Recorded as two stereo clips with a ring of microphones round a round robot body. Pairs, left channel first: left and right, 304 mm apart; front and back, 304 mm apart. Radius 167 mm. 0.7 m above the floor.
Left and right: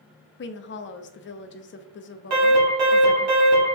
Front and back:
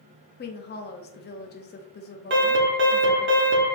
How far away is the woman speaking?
About 0.6 m.